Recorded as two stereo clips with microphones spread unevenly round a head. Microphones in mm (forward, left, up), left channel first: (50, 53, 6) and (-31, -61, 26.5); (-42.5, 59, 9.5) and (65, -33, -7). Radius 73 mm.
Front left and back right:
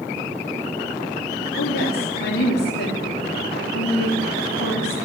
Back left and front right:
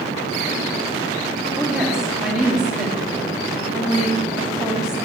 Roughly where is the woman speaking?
Ahead left.